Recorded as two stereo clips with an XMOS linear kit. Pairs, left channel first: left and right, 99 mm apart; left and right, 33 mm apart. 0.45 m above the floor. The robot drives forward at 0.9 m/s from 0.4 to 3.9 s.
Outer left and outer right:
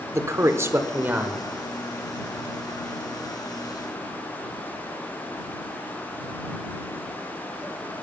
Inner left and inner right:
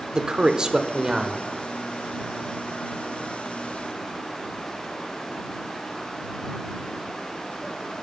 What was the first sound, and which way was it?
A man speaking, 30° right (ahead or behind).